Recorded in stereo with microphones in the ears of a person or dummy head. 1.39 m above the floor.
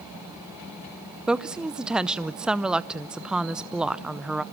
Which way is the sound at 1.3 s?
10° right (ahead or behind).